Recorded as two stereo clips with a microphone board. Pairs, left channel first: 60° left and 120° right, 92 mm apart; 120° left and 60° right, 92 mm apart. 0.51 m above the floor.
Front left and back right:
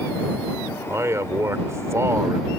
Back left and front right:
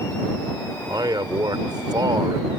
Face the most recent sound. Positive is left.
turn(degrees=-75)